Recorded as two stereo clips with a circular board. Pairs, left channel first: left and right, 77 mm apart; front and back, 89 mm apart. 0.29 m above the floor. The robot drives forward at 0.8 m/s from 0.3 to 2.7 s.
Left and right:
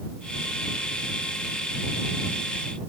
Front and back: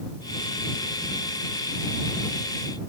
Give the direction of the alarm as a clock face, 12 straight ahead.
No alarm in this recording.